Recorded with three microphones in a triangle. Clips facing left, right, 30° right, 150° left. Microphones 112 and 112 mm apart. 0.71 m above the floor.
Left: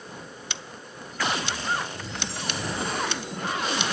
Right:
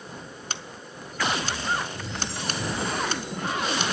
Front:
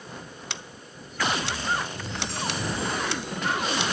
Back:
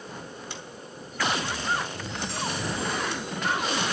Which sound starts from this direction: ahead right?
Scissors, at 0.5 s.